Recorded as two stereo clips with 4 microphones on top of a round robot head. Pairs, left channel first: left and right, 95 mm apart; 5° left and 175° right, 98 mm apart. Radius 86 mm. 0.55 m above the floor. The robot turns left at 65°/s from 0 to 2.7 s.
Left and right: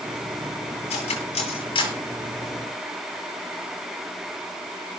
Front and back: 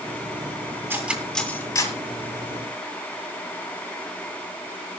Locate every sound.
0.9 s cutlery clinking: 115° left, 8 m; by 2.0 s 50° left, 8 m